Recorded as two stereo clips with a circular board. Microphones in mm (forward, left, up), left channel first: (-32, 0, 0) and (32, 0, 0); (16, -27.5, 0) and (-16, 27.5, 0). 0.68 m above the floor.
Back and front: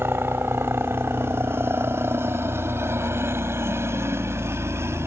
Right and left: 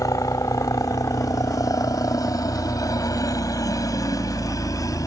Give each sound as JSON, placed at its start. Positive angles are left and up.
{"t": 0.0, "sound": "a helicopter", "azimuth_deg": -50}